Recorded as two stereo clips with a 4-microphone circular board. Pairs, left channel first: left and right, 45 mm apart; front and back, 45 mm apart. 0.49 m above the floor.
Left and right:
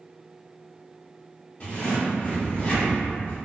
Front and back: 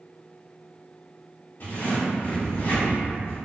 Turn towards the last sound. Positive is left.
turn(degrees=35)